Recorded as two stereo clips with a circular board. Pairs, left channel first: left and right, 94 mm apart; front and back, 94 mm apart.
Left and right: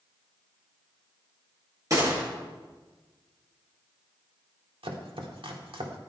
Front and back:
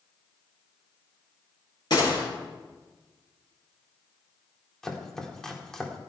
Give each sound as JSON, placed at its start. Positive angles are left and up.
{"t": 1.9, "sound": "a gunshot", "azimuth_deg": -40, "distance_m": 7.5}
{"t": 4.8, "sound": "chopping", "azimuth_deg": -85, "distance_m": 1.7}